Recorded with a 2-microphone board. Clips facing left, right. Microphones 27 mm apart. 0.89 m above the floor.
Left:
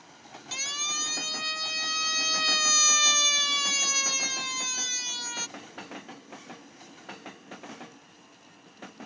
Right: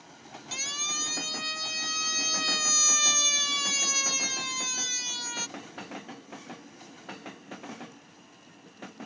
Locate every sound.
0.5 s a siren: 5° left (ahead or behind)